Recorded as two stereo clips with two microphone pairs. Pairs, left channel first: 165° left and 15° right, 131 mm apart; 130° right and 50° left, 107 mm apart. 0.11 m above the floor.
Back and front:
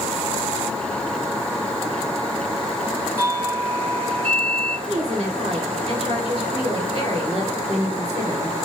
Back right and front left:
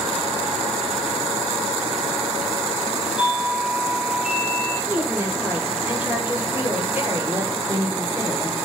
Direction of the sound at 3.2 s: 110° left.